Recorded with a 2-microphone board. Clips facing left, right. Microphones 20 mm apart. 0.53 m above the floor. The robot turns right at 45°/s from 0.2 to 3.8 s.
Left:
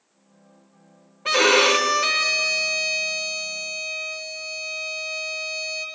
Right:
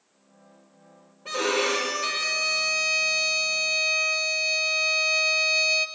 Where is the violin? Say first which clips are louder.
Left 8 dB; 110° left, 0.8 m; by 5.9 s 135° right, 0.8 m.